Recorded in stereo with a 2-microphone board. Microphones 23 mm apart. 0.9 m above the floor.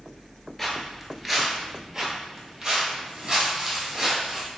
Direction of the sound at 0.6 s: 10° left (ahead or behind).